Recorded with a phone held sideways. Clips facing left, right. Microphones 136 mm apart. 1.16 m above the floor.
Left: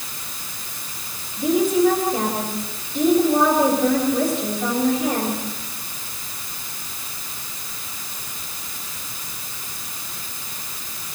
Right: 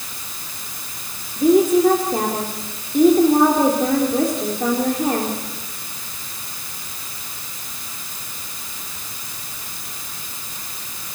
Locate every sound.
1.4 s a woman speaking: 60° right (ahead or behind), 4 m